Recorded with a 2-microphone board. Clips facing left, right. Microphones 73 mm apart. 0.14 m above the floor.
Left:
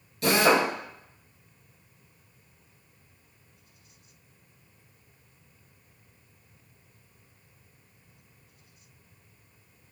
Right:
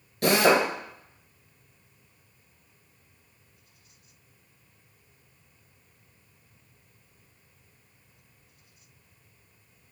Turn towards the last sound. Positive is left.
turn(degrees=-55)  # may be behind; listen again after turning